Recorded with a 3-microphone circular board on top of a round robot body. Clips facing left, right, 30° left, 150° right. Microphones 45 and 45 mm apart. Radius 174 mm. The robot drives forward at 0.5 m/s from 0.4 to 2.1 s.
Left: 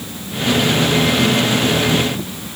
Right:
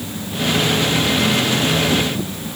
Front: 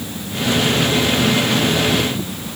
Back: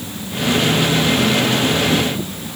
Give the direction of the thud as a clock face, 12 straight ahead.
No thud in this recording.